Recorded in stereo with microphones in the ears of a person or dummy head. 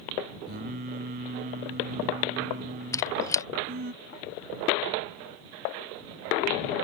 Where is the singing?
45° right (ahead or behind).